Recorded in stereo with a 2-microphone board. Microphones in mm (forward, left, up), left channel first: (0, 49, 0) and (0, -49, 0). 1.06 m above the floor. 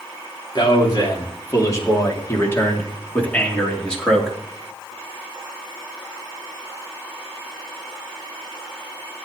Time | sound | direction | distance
0.6 | a man speaking | 45° left (ahead or behind) | 3 m